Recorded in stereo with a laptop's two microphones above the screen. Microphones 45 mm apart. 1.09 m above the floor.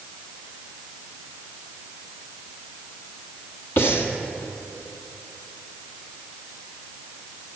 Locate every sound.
3.8 s breathing: 65° left (ahead or behind), 1.5 m